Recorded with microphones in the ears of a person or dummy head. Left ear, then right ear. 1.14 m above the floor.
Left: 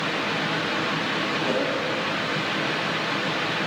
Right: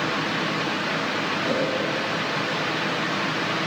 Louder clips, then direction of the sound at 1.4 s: Right 1 dB; 15° right (ahead or behind).